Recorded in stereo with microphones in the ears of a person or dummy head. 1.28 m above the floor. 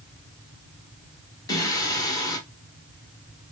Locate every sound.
1.5 s singing: 20° left (ahead or behind), 1.2 m